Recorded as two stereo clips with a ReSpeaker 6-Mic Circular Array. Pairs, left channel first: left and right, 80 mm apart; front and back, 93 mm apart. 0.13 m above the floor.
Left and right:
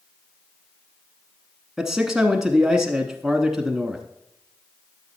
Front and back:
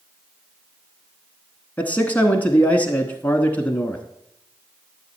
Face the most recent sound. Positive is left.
turn(degrees=-15)